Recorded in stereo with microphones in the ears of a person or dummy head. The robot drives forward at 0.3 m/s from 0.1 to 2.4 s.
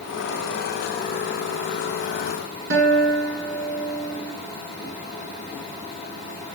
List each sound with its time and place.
2.7 s a guitar: 60° right (ahead or behind), 5 m